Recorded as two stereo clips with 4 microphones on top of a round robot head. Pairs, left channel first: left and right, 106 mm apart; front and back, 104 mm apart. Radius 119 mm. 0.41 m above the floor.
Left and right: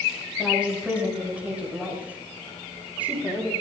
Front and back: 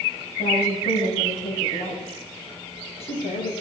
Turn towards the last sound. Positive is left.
turn(degrees=-15)